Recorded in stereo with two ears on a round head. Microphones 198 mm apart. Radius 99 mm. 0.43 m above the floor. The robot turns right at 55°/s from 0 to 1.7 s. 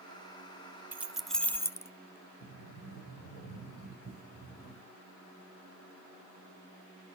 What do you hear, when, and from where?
0.9 s keys jangling: 10° right (ahead or behind), 0.5 m; by 1.9 s 10° left (ahead or behind), 0.5 m
2.4 s a sliding door: 45° left (ahead or behind), 2.5 m